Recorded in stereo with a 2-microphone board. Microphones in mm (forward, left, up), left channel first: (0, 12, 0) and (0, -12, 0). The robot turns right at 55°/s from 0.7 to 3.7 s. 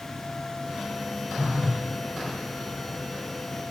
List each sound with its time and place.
1.4 s a phone buzzing: 50° right (ahead or behind), 1.5 m; by 1.8 s 25° right (ahead or behind), 1.5 m